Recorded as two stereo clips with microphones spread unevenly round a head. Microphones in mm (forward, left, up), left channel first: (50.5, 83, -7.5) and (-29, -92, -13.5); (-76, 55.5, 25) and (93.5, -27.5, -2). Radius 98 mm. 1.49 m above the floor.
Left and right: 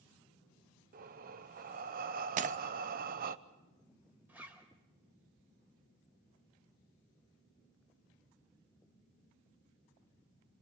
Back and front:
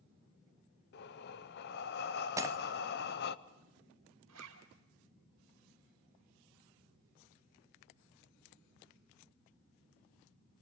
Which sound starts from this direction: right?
Breaking glass, at 2.4 s.